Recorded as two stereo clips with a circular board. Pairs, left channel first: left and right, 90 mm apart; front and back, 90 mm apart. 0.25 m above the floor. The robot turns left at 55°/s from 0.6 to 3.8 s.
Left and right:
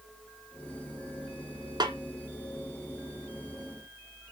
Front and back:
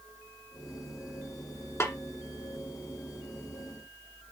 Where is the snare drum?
55° right, 1.7 m; by 1.9 s 65° right, 1.7 m.